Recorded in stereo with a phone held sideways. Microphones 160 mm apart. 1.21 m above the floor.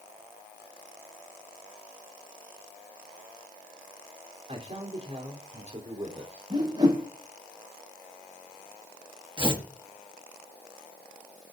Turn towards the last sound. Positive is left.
turn(degrees=-35)  # may be behind; listen again after turning